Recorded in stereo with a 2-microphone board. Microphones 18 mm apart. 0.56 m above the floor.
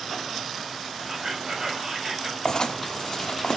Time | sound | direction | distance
1.1 | whispering | 30° right (ahead or behind) | 3 m
2.5 | writing | 40° left (ahead or behind) | 1.1 m